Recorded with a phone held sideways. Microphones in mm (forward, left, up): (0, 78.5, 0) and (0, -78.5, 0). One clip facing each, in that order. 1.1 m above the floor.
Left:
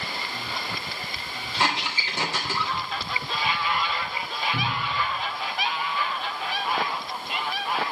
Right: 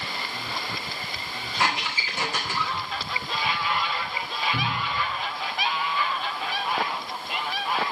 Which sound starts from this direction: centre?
A cupboard door, at 4.5 s.